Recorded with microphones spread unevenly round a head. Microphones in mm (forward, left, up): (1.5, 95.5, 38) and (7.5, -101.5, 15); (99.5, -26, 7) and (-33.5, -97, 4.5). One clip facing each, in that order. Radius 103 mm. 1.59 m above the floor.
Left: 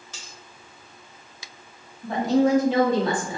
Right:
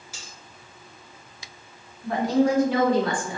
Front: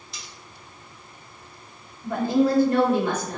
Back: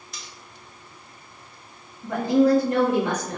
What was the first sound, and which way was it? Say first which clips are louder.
Cutlery clinking: right 1 dB, back 1 dB; 175° right.